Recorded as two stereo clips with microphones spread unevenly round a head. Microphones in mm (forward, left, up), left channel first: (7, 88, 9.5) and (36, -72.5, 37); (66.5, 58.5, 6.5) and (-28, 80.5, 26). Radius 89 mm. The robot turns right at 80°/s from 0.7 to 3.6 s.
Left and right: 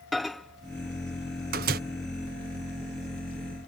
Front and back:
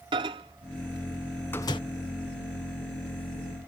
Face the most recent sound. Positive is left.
turn(degrees=70)